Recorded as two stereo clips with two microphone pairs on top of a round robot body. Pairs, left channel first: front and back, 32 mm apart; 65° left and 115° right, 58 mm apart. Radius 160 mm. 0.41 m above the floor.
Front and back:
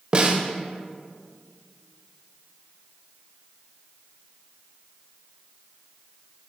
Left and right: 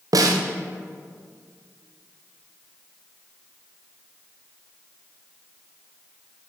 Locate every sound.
0.1 s a snare drum: 120° right, 0.8 m